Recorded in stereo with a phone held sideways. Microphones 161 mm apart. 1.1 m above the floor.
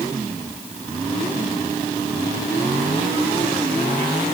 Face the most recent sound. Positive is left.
No sound to turn to.